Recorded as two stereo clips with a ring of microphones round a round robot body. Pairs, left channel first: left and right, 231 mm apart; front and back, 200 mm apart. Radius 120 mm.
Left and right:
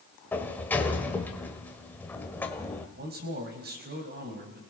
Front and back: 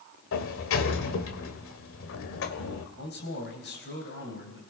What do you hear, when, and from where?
0.3 s a sliding door: 10° left, 1.5 m
3.0 s a man speaking: 40° right, 4 m